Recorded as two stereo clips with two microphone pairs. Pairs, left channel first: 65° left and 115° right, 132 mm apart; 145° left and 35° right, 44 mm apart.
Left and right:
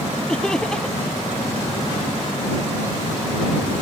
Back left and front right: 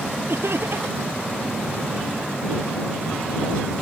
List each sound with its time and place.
0.3 s laughter: 20° right